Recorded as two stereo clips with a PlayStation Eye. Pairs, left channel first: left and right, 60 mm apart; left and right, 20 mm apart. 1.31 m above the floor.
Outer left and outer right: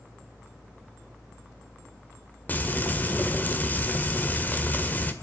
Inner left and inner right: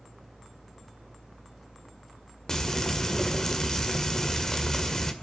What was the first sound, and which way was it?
Frying, 30° left (ahead or behind).